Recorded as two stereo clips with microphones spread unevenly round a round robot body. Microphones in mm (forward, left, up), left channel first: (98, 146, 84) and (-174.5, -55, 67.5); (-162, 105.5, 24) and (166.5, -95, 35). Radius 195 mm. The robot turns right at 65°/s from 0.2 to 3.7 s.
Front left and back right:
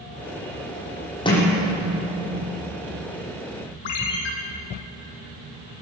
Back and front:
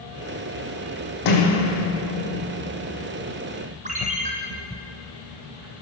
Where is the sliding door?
115° left, 8.5 m; by 2.5 s 165° right, 8.5 m.